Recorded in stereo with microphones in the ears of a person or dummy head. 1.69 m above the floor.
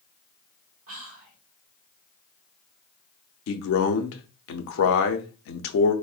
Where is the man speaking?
65° left (ahead or behind), 0.6 m.